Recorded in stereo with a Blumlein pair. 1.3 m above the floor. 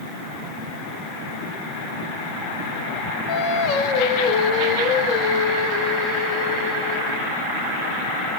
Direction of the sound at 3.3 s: 40° left.